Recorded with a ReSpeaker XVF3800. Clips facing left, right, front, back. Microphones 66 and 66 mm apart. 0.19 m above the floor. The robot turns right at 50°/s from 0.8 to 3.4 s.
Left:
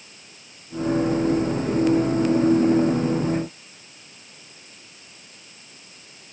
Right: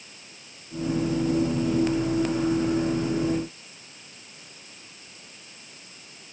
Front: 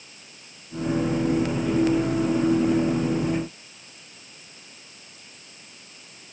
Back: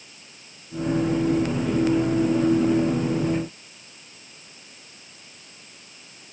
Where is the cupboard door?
No cupboard door in this recording.